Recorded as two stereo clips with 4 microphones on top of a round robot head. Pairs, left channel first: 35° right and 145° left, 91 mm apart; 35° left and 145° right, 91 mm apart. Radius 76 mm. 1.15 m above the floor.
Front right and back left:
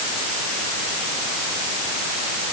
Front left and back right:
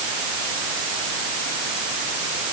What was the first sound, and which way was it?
Only background noise.